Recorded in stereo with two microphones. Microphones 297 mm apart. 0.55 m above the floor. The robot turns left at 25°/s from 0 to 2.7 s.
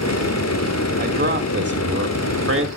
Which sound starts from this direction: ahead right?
A man speaking, at 1.0 s.